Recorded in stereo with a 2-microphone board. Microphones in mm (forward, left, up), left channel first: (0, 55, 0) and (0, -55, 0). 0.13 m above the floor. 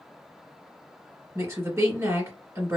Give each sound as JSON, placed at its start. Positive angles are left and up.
{"t": 1.4, "sound": "a woman speaking", "side_deg": -25, "distance_m": 1.8}